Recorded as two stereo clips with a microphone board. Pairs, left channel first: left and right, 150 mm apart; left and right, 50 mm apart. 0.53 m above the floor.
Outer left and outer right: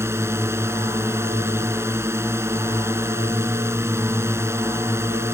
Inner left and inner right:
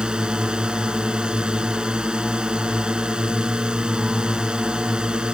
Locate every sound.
0.0 s a drone: 15° right (ahead or behind)